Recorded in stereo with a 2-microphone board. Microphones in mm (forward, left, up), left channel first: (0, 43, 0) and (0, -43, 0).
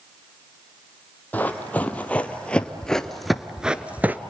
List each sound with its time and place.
1.3 s running footsteps: 20° left (ahead or behind), 1.8 m; by 4.2 s 20° right (ahead or behind), 0.8 m